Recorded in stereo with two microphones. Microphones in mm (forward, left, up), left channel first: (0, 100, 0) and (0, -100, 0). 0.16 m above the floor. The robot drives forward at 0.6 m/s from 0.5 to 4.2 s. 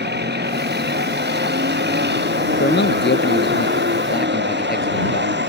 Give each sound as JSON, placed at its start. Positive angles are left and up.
{"t": 0.0, "sound": "a vehicle", "side_deg": -55}
{"t": 2.6, "sound": "a man speaking", "side_deg": 60}